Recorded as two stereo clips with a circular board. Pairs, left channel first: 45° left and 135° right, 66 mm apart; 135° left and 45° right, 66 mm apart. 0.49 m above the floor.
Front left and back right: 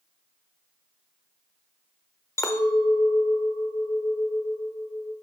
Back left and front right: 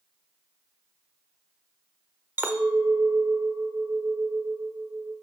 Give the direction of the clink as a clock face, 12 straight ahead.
12 o'clock.